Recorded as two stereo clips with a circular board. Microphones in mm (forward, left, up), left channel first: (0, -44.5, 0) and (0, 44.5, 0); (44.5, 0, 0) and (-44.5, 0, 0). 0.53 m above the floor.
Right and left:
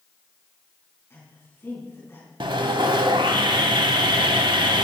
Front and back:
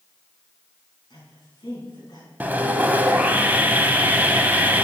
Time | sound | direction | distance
1.1 | a woman speaking | 30° right | 5 m
2.4 | sawing | 110° left | 0.8 m